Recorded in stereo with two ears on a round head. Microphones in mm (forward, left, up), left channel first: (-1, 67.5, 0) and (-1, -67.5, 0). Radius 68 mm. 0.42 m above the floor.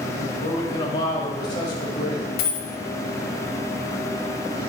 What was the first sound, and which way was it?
A man speaking, 30° left (ahead or behind).